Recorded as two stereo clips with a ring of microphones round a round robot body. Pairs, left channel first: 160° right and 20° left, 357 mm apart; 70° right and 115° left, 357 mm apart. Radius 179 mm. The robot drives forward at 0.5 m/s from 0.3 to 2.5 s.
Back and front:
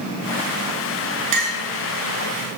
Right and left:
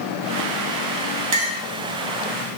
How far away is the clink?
About 4 m.